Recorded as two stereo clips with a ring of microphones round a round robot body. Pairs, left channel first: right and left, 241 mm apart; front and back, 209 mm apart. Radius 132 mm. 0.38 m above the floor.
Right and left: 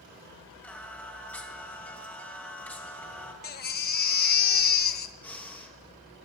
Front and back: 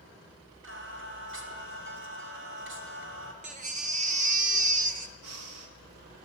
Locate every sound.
0.6 s singing: 175° right, 3 m
3.4 s a baby crying: 130° right, 1.1 m
5.2 s breathing: 175° right, 2 m